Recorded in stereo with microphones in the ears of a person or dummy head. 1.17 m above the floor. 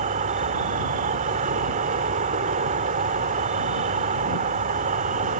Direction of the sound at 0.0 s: 40° right (ahead or behind).